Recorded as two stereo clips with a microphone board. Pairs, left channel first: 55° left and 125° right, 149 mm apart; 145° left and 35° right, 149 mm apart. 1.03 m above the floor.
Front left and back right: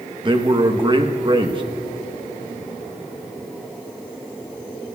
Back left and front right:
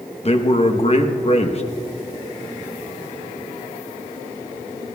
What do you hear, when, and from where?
0.2 s a man speaking: 175° right, 1.0 m